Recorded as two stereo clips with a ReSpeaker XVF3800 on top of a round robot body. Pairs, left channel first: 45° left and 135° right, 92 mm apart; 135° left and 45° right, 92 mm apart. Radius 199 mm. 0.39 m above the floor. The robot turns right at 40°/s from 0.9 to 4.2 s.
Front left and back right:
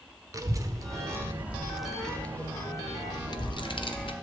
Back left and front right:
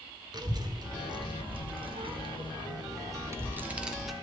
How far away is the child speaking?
About 1.5 m.